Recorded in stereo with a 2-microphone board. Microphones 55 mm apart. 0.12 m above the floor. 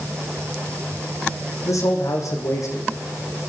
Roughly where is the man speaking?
Left.